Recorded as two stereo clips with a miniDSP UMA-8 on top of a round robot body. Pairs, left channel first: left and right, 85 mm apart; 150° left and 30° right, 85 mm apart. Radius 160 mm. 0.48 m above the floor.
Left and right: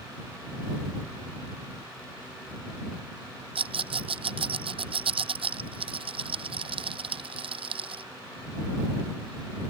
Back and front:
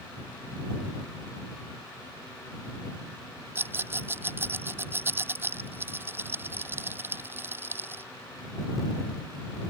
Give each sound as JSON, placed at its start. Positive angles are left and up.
{"t": 3.5, "sound": "a rattle", "azimuth_deg": -95}